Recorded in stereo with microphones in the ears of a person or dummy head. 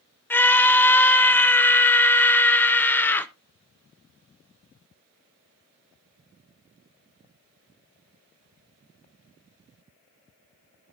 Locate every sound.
0.3 s a scream: 10° left (ahead or behind), 0.6 m